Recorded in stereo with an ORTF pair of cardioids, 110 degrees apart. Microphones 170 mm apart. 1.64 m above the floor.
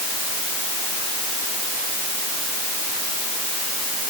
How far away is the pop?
No pop in this recording.